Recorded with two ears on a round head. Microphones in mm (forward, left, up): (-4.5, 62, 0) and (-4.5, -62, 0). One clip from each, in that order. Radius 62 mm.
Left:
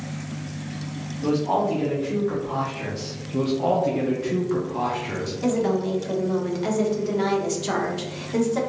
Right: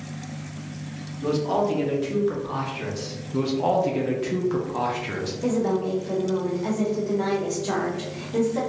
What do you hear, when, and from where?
1.2 s a man speaking: 40° right (ahead or behind), 1.6 m; by 3.1 s 30° right (ahead or behind), 1.0 m
3.3 s a man speaking: 20° right (ahead or behind), 0.5 m
5.4 s a woman speaking: 65° left (ahead or behind), 1.0 m